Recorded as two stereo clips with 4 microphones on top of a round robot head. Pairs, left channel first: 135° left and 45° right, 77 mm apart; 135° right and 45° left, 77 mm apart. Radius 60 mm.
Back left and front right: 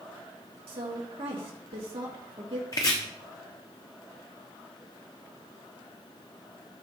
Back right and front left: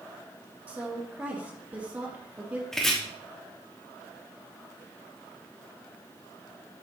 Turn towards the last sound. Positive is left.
turn(degrees=145)